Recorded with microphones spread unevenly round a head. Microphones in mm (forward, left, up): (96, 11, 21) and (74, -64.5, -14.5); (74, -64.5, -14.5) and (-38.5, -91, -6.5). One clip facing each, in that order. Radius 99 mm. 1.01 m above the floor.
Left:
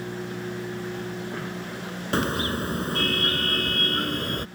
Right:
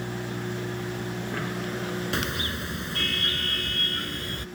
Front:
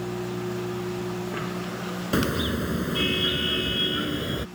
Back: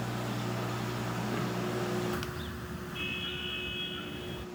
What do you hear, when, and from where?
2.1 s a car horn: 35° left; by 4.5 s 60° left